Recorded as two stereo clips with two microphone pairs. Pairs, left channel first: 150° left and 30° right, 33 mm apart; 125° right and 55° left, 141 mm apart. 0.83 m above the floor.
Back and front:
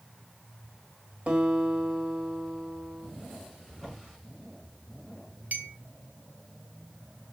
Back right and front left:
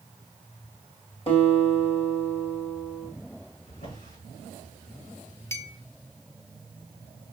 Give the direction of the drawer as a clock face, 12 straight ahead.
4 o'clock.